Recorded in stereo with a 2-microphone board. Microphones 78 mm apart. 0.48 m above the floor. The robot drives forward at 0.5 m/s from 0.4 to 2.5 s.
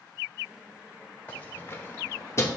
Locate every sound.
1.3 s keys jangling: 25° left (ahead or behind), 1.2 m; by 2.5 s 35° left (ahead or behind), 0.9 m